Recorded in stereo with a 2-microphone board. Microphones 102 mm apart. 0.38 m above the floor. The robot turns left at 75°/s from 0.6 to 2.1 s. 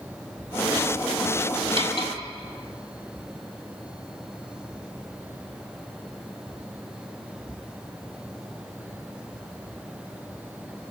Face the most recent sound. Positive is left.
turn(degrees=-80)